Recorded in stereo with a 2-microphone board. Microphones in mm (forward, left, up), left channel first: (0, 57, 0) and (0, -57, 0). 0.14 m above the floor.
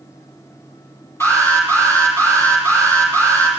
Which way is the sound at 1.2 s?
20° left (ahead or behind).